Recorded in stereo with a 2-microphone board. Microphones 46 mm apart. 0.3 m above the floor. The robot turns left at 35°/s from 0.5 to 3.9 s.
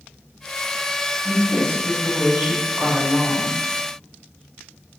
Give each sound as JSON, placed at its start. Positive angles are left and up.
{"t": 1.2, "sound": "a woman speaking", "azimuth_deg": -85, "distance_m": 1.2}